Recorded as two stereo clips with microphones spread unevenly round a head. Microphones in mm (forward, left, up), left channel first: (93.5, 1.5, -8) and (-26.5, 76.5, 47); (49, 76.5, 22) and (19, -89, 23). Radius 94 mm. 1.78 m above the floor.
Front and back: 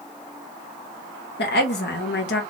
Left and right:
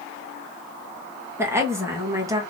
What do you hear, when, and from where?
1.4 s a woman speaking: 25° right, 2 m; by 2.4 s 30° right, 1.4 m